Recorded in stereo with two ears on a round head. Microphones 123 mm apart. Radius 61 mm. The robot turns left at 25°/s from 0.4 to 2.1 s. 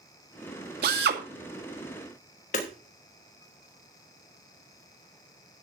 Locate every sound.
0.8 s a drill: 75° right (ahead or behind), 2 m; by 1.2 s 80° right, 2 m
2.5 s hammering: 60° left (ahead or behind), 3 m